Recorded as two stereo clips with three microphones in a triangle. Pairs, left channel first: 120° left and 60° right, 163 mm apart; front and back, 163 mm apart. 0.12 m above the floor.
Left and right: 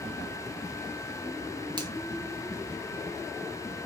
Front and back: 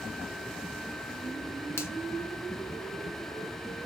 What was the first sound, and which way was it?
A finger snap, 55° right.